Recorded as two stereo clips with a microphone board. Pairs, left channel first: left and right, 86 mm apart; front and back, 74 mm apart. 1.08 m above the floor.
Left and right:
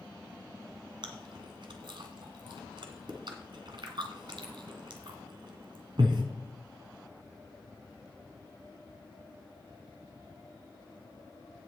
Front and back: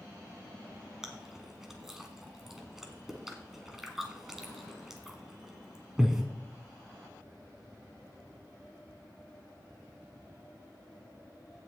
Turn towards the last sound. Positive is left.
turn(degrees=-95)